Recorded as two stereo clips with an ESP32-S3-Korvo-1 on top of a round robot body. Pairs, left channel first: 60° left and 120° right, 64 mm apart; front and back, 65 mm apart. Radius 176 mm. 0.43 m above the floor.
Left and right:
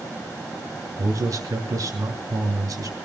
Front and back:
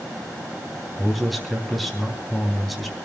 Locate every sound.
1.0 s a man speaking: 90° right, 3.5 m